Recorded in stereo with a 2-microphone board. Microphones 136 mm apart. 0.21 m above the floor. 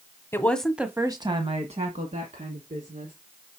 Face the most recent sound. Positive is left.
turn(degrees=-65)  # may be behind; listen again after turning